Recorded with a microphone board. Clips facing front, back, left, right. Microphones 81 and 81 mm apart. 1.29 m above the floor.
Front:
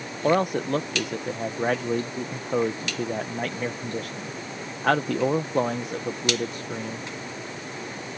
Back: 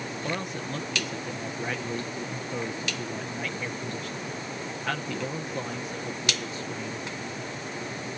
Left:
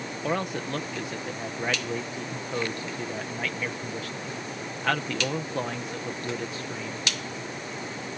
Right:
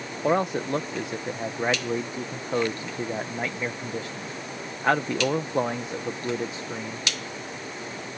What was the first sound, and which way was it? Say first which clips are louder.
A man speaking: front 13 dB, right 6 dB; 25° right.